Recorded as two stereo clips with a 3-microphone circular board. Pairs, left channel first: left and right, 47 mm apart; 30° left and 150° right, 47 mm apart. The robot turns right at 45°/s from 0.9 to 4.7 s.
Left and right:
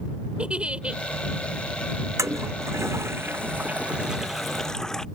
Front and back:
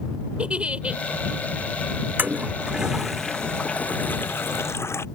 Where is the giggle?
125° right; by 1.0 s 120° right.